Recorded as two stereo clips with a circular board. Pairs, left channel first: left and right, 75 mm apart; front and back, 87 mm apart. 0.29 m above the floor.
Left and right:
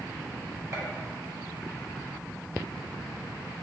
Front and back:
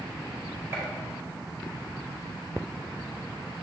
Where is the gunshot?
130° right, 2 m.